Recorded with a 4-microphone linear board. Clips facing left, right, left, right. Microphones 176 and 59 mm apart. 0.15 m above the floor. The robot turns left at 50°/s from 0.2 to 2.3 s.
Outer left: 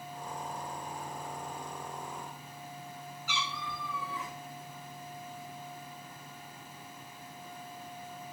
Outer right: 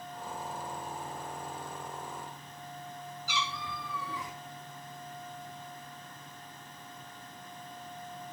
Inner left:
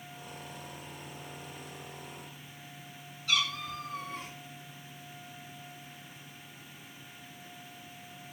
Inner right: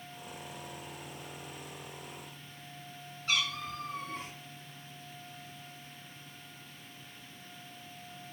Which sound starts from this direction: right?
A cat meowing, at 3.3 s.